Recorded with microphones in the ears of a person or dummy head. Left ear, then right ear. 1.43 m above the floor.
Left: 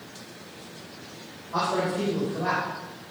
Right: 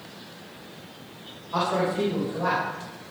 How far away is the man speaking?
About 5.5 m.